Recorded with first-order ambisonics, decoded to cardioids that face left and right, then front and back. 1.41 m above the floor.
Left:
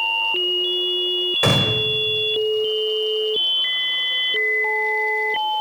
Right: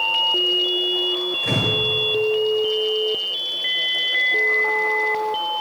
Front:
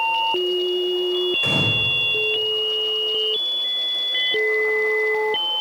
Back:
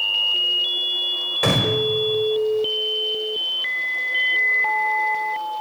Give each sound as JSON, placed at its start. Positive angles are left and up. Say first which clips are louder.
{"t": 1.4, "sound": "a gunshot", "louder": "left 2 dB, back 2 dB", "azimuth_deg": 125, "distance_m": 5.5}